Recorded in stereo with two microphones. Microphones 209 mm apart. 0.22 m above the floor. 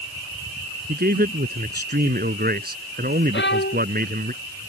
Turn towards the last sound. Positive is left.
turn(degrees=65)  # may be behind; listen again after turning